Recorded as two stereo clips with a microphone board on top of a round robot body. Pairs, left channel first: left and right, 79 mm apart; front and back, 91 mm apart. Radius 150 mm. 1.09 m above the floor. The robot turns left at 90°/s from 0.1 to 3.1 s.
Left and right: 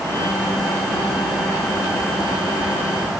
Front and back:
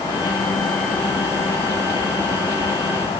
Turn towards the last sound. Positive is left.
No sound to turn to.